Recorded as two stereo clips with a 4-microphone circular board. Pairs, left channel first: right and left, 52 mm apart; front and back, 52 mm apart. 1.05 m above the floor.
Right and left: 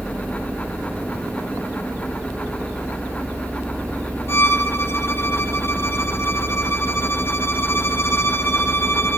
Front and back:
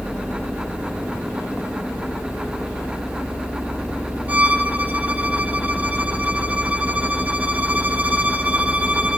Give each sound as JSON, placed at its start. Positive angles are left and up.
{"t": 4.3, "sound": "a violin", "azimuth_deg": -120, "distance_m": 0.7}